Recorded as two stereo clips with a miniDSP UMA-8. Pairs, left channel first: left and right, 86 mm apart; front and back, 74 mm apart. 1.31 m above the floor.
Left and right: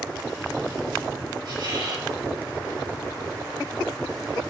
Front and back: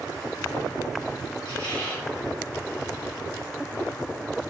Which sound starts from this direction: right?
A squeak, at 1.4 s.